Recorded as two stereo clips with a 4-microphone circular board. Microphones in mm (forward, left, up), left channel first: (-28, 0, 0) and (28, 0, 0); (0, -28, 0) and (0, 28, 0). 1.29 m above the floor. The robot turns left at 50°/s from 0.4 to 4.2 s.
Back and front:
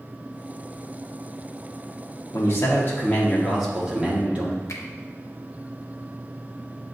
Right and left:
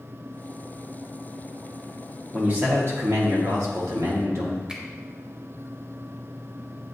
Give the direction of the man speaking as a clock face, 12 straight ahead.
7 o'clock.